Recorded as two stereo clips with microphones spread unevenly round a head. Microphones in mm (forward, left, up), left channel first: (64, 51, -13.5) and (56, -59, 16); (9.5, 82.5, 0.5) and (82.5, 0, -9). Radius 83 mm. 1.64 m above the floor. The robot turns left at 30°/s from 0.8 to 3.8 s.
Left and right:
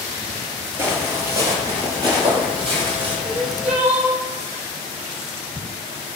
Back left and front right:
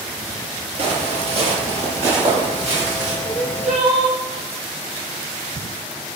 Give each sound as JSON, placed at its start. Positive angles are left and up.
{"t": 0.8, "sound": "footsteps", "azimuth_deg": -55, "distance_m": 2.5}
{"t": 3.2, "sound": "crying", "azimuth_deg": -90, "distance_m": 1.3}